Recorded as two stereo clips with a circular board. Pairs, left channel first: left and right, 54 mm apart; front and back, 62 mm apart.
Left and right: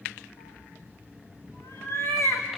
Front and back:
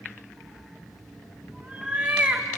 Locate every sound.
0.4 s a cat meowing: 100° left, 5.5 m; by 2.6 s 115° left, 3.5 m